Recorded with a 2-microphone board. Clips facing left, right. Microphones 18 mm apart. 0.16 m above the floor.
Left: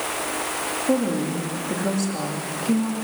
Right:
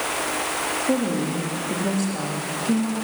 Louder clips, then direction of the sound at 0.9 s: Left 3 dB; 10° left (ahead or behind).